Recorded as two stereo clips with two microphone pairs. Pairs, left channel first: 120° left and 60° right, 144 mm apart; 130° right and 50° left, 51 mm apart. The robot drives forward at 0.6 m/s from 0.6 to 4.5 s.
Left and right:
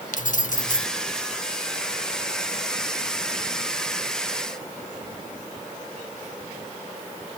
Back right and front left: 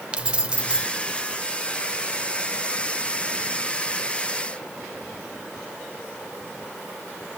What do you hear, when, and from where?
0.1 s keys jangling: 120° left, 1.1 m; by 0.9 s 125° left, 1.1 m